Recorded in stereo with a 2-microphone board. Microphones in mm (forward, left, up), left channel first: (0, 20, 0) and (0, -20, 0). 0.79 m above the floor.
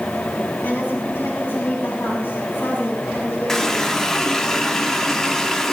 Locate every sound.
0.6 s a woman speaking: 65° left (ahead or behind), 3.5 m; by 4.5 s 45° left (ahead or behind), 7.5 m
3.5 s a running tap: 10° left (ahead or behind), 1.1 m